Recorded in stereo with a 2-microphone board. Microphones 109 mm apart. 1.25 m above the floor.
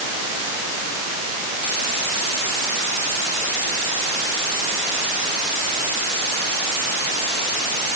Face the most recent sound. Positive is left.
No sound to turn to.